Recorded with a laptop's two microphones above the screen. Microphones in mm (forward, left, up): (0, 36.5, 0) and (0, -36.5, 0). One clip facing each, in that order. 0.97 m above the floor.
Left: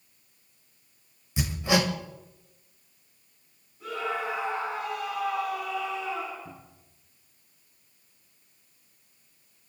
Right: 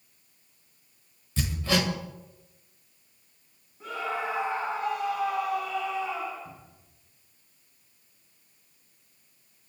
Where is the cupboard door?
40° left (ahead or behind), 4.5 m.